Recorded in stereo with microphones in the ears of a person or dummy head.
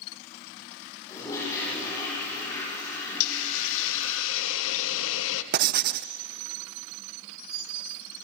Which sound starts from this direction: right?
Writing, at 5.5 s.